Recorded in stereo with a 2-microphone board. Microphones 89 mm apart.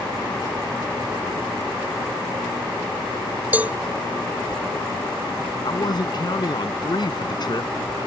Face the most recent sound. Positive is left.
turn(degrees=50)  # may be behind; listen again after turning